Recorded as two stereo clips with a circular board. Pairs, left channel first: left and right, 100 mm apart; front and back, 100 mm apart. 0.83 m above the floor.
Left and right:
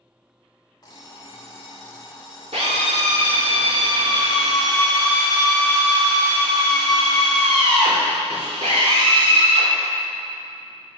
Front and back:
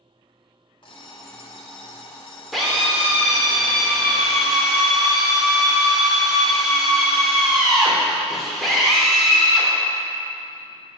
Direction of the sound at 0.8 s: 40° left.